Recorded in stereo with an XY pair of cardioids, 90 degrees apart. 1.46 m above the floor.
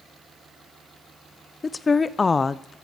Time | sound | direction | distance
1.6 | a woman speaking | 35° left | 0.6 m